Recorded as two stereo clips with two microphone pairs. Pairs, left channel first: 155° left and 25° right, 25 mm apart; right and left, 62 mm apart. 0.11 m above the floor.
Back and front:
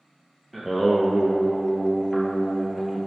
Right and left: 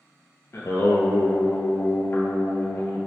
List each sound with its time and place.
0.5 s singing: 125° right, 0.5 m